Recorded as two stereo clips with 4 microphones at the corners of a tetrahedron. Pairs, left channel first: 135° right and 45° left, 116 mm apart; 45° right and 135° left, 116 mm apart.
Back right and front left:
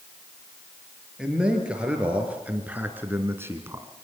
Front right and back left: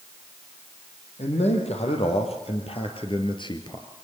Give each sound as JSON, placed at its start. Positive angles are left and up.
{"t": 1.2, "sound": "a man speaking", "azimuth_deg": -35, "distance_m": 4.0}